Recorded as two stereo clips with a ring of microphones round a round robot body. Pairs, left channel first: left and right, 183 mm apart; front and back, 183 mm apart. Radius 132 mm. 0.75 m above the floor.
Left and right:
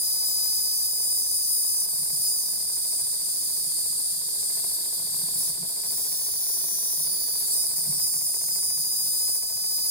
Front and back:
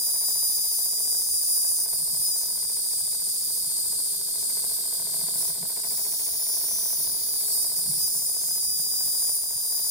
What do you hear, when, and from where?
0.0 s an insect: 140° left, 1.9 m